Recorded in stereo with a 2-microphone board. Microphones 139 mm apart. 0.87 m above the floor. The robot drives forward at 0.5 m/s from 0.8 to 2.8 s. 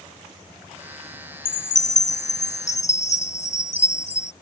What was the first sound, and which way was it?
A chime, 65° left (ahead or behind).